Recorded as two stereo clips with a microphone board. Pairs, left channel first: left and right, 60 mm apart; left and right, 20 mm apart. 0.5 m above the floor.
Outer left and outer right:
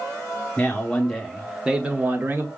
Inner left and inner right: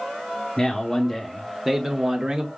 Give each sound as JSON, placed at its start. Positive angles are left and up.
{"t": 0.6, "sound": "a man speaking", "side_deg": 25, "distance_m": 1.0}